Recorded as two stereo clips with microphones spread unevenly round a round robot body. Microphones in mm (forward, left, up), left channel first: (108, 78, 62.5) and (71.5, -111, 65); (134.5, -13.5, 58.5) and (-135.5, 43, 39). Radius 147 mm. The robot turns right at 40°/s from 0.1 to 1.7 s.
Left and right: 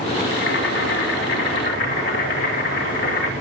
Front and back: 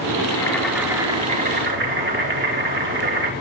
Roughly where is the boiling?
Ahead left.